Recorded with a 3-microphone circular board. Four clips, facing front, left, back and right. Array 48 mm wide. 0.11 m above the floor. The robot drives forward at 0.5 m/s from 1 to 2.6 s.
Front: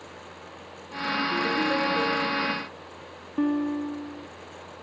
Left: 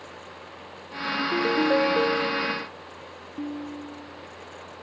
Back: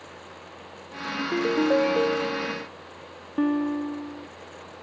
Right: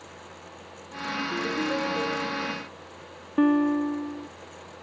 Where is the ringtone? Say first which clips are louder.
Left 6 dB, back 3 dB; 140° left; by 2.7 s 145° left.